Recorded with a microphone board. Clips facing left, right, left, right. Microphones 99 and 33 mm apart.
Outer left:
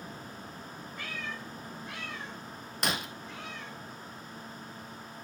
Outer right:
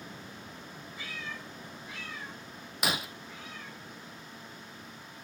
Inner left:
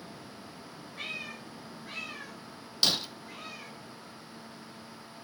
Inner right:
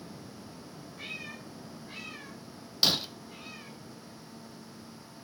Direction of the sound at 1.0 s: 55° left (ahead or behind).